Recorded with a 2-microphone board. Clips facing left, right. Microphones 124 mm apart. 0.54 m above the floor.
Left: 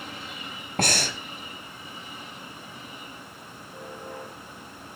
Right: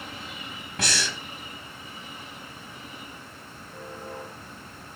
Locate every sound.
0.8 s breathing: 50° left (ahead or behind), 1.1 m